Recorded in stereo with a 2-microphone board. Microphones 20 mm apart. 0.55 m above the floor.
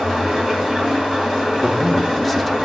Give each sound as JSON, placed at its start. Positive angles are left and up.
{"t": 0.0, "sound": "an engine running", "side_deg": -30, "distance_m": 2.5}
{"t": 1.6, "sound": "a man speaking", "side_deg": -10, "distance_m": 0.6}